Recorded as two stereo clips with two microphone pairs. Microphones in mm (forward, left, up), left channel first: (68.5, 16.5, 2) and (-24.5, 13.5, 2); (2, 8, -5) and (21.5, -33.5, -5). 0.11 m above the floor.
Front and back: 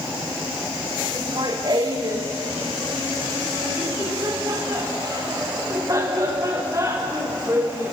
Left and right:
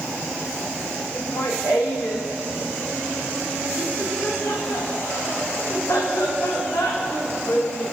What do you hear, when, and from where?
1.1 s laughter: 140° left, 7 m; by 7.9 s 120° left, 9 m